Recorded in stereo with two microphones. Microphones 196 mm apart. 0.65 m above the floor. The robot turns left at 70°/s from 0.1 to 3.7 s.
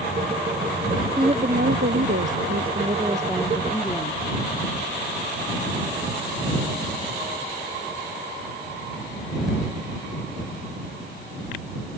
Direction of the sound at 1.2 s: 20° right.